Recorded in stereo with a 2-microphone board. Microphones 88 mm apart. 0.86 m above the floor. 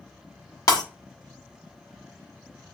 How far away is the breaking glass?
About 1.1 m.